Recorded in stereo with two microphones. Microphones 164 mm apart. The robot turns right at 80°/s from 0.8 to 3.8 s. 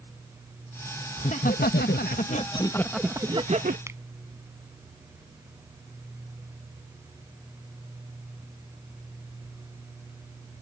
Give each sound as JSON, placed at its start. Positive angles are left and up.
{"t": 1.2, "sound": "laughter", "azimuth_deg": 35}
{"t": 3.9, "sound": "a finger snap", "side_deg": -15}